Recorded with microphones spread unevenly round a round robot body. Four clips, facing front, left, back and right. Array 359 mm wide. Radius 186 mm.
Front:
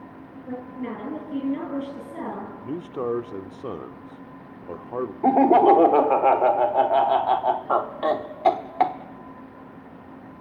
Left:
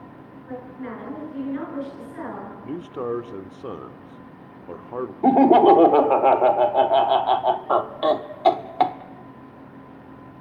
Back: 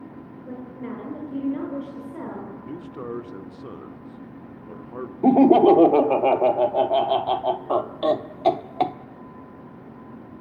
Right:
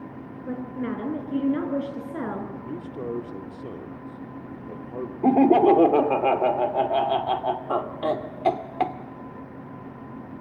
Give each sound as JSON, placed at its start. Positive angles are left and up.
{"t": 0.5, "sound": "a woman speaking", "azimuth_deg": -60, "distance_m": 7.0}
{"t": 2.6, "sound": "a man speaking", "azimuth_deg": 25, "distance_m": 1.2}
{"t": 5.2, "sound": "laughter", "azimuth_deg": 170, "distance_m": 0.8}